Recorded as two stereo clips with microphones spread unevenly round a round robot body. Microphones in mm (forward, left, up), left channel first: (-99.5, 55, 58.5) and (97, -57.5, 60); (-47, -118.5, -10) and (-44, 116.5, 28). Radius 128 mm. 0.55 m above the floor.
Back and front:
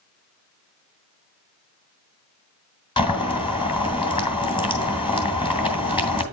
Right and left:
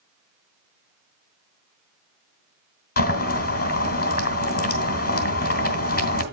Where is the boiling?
140° right, 2.5 m.